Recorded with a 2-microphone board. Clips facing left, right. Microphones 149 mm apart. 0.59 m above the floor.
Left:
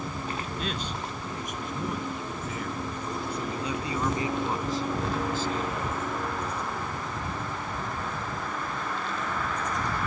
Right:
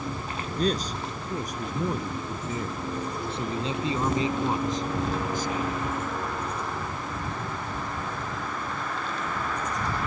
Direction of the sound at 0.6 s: 40° right (ahead or behind).